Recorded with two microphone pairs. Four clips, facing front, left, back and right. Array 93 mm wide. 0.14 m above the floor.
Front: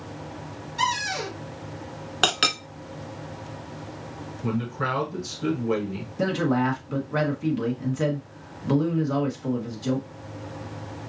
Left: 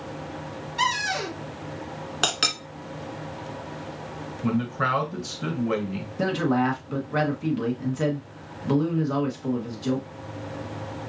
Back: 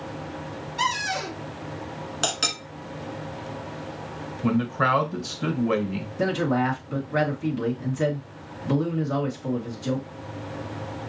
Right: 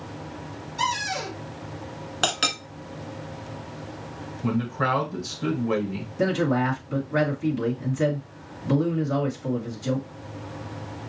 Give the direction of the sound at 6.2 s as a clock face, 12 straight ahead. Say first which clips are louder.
Even, even; 10 o'clock.